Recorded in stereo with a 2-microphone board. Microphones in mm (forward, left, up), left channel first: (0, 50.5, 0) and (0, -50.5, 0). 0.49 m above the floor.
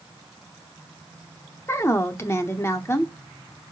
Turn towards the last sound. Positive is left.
turn(degrees=25)  # may be behind; listen again after turning